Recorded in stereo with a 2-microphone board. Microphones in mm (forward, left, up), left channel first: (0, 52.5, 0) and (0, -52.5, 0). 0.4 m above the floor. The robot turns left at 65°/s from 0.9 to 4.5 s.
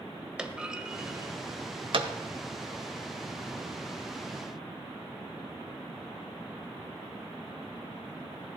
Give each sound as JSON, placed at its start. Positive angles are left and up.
{"t": 0.4, "sound": "a clunk", "side_deg": -10, "distance_m": 1.1}